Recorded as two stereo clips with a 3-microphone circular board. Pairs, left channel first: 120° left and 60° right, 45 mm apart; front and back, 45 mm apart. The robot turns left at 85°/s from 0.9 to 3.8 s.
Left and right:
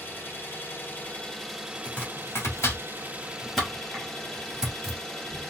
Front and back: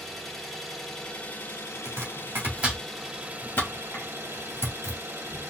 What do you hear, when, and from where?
0.0 s an engine running: 85° left, 1.3 m; by 5.5 s 160° right, 1.3 m
1.9 s chopping: straight behind, 1.5 m; by 5.0 s 15° left, 1.5 m